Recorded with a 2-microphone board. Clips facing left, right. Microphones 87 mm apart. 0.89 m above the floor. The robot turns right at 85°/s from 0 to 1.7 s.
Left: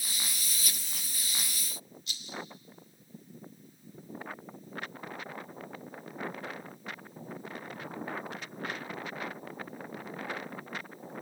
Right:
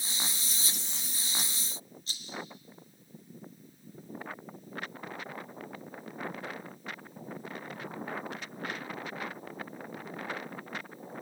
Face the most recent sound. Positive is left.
turn(degrees=-40)  # may be behind; listen again after turning